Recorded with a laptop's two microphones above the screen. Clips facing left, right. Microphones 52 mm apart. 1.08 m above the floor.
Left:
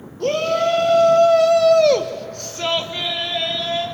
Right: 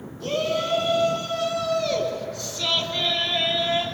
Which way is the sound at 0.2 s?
65° left (ahead or behind).